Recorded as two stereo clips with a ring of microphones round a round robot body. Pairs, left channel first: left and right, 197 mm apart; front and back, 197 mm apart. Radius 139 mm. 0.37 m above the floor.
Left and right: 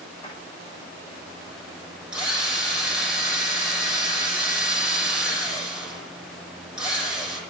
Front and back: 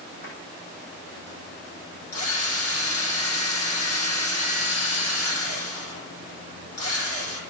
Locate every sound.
0.2 s a drawer: 25° left, 8 m
2.1 s a drill: 5° right, 9.5 m